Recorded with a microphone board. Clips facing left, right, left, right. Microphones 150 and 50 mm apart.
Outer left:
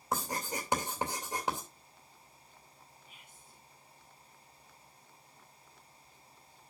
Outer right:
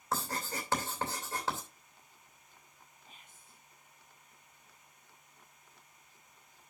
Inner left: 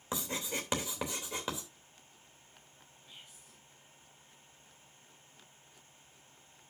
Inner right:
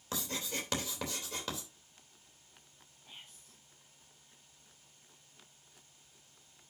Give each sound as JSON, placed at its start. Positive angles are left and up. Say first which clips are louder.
{"t": 0.1, "sound": "writing", "louder": "outer left 1 dB, inner left 2 dB", "side_deg": 15, "distance_m": 3.0}
{"t": 3.0, "sound": "whispering", "louder": "outer left 1 dB, inner right 2 dB", "side_deg": -35, "distance_m": 1.8}